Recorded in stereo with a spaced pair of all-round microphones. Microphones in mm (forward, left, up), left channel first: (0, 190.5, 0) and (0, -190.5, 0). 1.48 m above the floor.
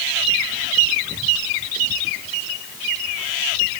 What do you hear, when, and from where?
Only background noise.